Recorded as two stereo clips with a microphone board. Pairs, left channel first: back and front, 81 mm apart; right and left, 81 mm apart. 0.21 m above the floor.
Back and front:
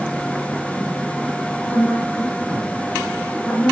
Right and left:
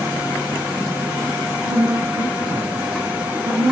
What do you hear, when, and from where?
1.6 s a woman speaking: 100° left, 3 m